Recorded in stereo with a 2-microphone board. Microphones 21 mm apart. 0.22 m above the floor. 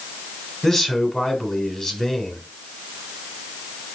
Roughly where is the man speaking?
Left.